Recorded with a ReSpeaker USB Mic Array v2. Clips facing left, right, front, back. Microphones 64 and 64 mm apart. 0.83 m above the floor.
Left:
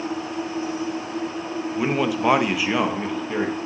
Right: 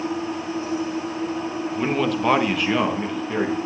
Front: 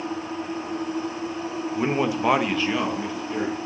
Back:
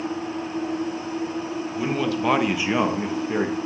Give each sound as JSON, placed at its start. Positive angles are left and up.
{"t": 1.8, "sound": "a man speaking", "azimuth_deg": 10, "distance_m": 1.0}